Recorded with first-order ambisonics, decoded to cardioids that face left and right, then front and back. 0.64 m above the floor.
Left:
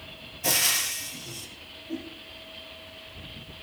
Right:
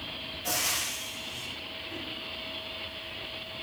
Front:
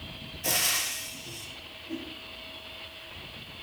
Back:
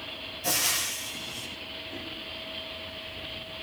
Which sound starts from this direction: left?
Frying, at 0.4 s.